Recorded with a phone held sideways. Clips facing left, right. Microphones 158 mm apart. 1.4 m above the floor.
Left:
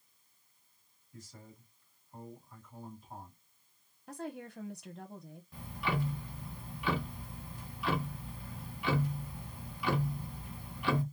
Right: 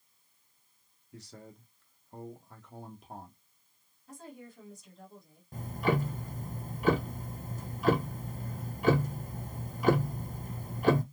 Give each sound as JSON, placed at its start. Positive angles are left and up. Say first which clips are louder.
{"t": 1.1, "sound": "a man speaking", "louder": "right 4 dB", "side_deg": -75, "distance_m": 1.0}
{"t": 4.1, "sound": "a woman speaking", "louder": "left 6 dB", "side_deg": 75, "distance_m": 0.8}
{"t": 5.5, "sound": "ticking", "louder": "right 7 dB", "side_deg": -45, "distance_m": 0.5}